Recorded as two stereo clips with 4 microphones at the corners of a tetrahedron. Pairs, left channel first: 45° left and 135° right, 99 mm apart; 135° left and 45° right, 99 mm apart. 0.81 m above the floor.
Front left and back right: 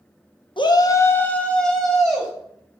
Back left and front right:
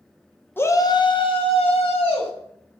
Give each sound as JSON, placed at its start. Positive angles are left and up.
{"t": 0.6, "sound": "a shout", "azimuth_deg": 70, "distance_m": 0.7}